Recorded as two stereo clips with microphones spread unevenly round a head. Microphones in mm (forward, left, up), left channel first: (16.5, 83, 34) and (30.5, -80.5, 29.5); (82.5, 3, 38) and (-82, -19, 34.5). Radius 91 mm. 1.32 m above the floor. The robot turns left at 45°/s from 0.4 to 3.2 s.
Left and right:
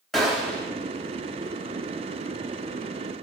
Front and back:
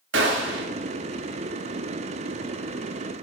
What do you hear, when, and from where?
0.1 s a gunshot: 175° right, 1.1 m; by 0.7 s 170° left, 1.1 m